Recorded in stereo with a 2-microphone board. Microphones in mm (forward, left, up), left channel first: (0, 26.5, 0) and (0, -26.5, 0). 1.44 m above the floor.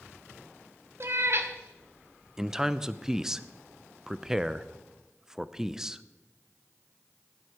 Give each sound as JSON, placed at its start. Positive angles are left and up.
{"t": 1.0, "sound": "a cat meowing", "side_deg": -55, "distance_m": 1.2}
{"t": 2.4, "sound": "a man speaking", "side_deg": -10, "distance_m": 0.5}